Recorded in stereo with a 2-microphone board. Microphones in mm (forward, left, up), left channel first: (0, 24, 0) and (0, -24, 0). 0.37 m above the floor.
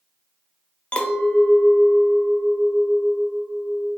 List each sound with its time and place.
0.9 s a clink: 25° left (ahead or behind), 0.5 m